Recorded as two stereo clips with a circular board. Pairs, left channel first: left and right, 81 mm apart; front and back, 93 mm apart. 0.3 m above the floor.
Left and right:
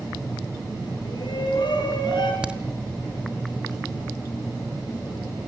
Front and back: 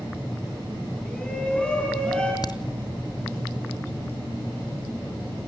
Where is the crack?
15° right, 1.4 m.